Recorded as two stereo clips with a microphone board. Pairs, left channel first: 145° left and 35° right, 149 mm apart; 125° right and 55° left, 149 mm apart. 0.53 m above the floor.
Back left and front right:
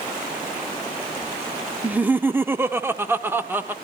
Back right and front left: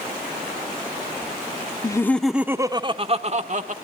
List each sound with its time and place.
1.8 s laughter: 105° right, 0.6 m; by 3.7 s 40° left, 1.1 m